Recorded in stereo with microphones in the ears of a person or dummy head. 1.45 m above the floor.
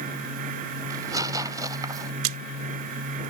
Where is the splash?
80° right.